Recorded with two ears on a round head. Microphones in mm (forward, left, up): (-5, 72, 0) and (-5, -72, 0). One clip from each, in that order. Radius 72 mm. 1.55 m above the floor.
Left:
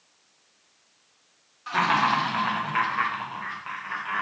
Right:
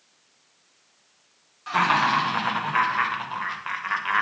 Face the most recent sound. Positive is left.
turn(degrees=-50)  # may be behind; listen again after turning